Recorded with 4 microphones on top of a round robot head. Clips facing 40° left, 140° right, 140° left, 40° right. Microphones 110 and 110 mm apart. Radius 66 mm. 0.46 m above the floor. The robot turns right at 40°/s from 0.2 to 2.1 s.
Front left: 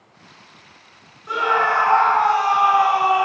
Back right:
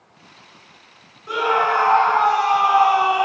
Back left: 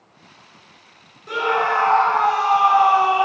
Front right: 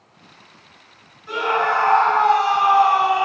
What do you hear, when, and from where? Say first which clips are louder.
1.3 s a scream: even, even; 140° left, 1.1 m; by 3.3 s 170° left, 1.1 m